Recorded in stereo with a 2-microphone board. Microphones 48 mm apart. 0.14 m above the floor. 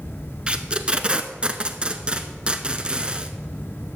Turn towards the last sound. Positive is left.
turn(degrees=-20)  # may be behind; listen again after turning